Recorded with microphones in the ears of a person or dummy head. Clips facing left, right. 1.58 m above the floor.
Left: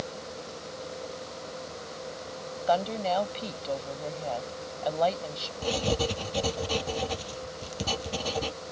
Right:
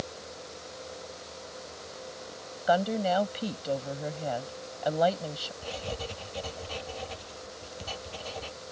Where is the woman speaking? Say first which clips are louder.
Right 1 dB; 15° right (ahead or behind).